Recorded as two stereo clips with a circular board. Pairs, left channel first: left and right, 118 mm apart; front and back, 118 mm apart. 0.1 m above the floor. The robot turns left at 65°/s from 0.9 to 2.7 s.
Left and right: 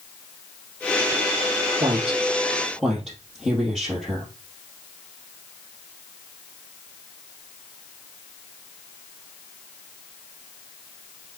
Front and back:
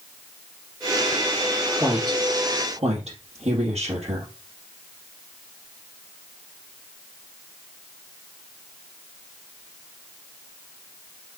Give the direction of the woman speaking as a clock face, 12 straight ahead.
4 o'clock.